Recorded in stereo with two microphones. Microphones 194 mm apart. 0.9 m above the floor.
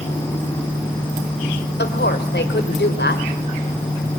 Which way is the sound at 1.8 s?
65° left (ahead or behind).